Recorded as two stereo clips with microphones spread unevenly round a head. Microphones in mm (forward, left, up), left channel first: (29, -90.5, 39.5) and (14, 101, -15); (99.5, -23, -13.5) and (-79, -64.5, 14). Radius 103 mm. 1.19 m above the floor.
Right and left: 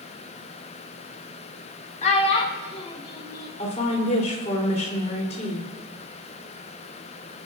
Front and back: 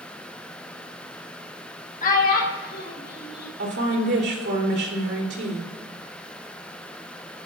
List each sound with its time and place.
2.0 s a child speaking: 30° right, 2.5 m; by 3.5 s 10° right, 4.5 m
3.6 s a woman speaking: 145° right, 3.5 m